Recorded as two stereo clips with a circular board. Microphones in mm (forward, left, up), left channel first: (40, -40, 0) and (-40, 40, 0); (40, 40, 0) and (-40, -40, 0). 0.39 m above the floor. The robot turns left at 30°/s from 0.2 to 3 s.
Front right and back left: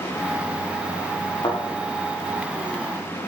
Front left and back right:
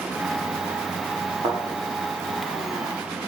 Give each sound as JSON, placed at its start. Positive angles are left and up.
{"t": 1.4, "sound": "a thud", "azimuth_deg": -95, "distance_m": 7.0}